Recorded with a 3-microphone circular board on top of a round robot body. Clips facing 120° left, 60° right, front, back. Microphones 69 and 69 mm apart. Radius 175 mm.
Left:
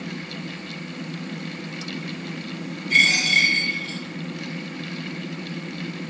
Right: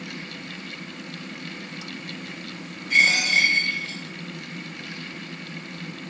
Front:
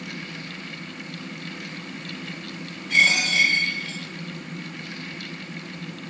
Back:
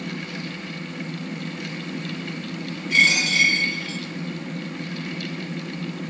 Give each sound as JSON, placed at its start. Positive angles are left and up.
{"t": 2.9, "sound": "a dropped coin", "azimuth_deg": 0, "distance_m": 1.3}